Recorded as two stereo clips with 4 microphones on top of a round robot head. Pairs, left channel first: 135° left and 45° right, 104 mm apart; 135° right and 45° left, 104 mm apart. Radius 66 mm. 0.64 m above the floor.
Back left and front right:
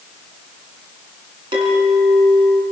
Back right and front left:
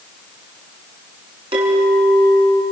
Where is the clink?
Straight ahead, 6 m.